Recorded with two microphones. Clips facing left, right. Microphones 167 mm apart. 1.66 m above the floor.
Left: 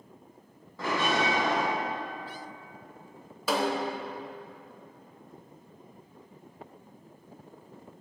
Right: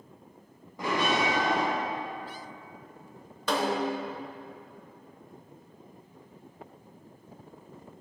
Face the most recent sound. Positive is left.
turn(degrees=5)  # may be behind; listen again after turning